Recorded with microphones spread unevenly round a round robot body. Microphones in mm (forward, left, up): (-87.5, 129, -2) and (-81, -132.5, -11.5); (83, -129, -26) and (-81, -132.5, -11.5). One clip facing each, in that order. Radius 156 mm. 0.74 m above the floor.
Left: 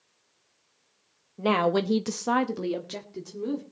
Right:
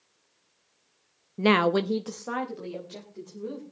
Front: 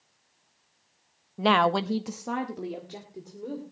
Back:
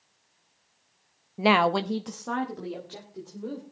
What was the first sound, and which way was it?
A woman speaking, 95° right.